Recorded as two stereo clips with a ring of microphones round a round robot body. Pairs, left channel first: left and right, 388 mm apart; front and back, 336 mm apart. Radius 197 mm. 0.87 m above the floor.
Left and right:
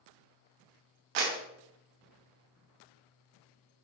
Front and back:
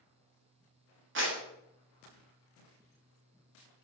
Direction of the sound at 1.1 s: 120° right.